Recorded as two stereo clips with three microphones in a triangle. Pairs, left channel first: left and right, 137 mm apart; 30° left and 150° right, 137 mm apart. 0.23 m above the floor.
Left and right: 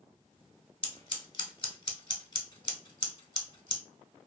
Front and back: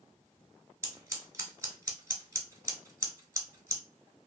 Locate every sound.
0.8 s scissors: 145° left, 0.7 m